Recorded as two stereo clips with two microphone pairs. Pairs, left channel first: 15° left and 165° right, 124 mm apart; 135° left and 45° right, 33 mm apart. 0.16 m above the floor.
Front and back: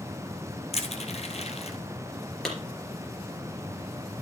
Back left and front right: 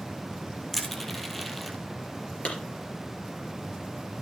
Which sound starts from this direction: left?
A clap, at 2.5 s.